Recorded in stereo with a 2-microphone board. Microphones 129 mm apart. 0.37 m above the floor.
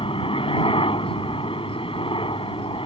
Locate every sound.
0.0 s a helicopter: 45° left (ahead or behind)